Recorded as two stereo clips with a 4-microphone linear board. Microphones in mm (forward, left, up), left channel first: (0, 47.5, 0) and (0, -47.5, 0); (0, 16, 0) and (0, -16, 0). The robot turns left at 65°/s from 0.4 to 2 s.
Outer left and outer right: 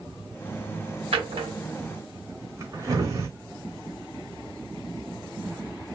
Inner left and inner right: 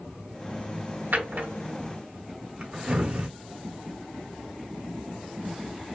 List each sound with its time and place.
1.1 s a drawer: 85° right, 1.1 m; by 3.3 s 35° right (ahead or behind), 1.1 m